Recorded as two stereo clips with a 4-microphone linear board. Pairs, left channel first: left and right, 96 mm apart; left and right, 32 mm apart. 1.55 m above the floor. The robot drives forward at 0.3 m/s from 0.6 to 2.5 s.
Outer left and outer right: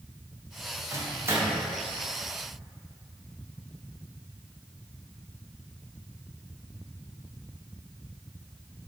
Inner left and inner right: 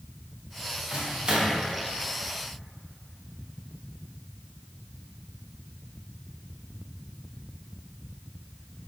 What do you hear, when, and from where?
0.9 s a microwave: 30° right (ahead or behind), 0.5 m; by 1.6 s 25° right (ahead or behind), 0.6 m